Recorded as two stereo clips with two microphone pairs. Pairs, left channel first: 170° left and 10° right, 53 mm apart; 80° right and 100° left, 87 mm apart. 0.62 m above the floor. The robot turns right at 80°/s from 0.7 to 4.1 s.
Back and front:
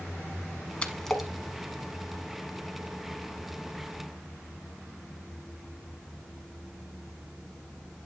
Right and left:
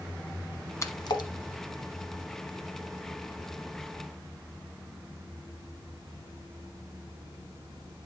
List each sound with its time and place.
0.8 s a splash: 130° right, 1.1 m; by 1.3 s 90° right, 1.1 m